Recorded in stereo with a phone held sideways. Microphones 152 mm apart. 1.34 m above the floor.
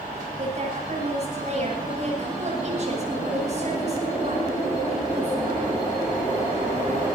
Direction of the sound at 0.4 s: 50° right (ahead or behind).